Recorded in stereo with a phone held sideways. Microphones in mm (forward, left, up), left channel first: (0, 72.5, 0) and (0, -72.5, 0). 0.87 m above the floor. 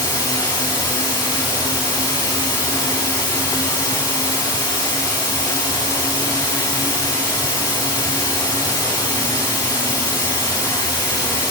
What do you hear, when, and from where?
0.0 s running water: 30° left (ahead or behind), 3 m